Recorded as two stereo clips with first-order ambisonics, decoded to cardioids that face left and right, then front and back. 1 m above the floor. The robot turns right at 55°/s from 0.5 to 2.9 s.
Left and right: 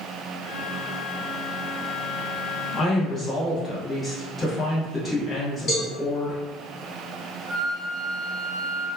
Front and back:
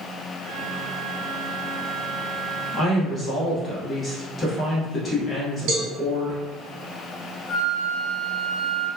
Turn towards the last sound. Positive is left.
turn(degrees=-120)